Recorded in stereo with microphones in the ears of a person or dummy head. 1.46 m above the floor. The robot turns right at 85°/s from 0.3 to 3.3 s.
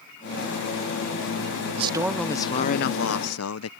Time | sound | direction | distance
1.8 | a man speaking | 35° right | ?